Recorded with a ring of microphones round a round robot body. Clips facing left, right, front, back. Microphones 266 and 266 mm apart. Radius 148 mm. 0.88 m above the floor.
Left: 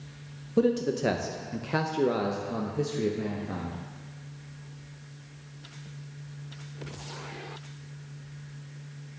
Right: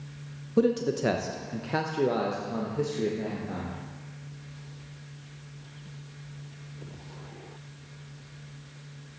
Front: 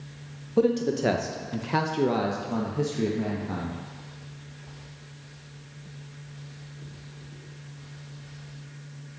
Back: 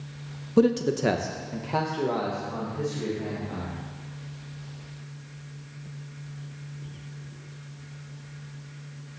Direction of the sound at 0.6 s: 170° right.